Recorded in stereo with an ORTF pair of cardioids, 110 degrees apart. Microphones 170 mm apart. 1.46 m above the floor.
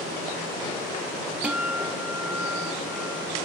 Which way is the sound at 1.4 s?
5° right.